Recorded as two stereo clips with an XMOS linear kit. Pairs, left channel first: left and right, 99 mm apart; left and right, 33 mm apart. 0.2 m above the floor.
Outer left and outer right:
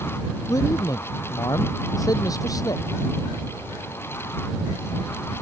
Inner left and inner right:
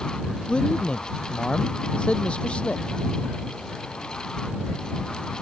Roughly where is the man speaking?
Left.